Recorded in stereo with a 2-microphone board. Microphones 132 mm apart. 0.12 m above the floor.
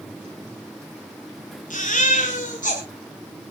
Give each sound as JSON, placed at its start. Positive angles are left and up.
{"t": 1.7, "sound": "a baby crying", "side_deg": 75, "distance_m": 6.0}